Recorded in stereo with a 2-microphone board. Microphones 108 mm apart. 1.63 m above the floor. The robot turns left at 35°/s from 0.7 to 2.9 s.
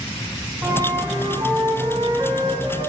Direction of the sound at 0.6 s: 30° right.